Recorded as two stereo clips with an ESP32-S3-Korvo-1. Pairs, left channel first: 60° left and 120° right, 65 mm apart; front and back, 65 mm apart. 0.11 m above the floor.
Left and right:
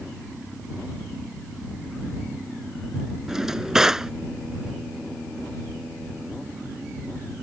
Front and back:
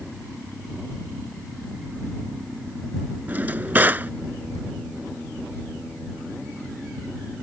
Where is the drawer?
165° left.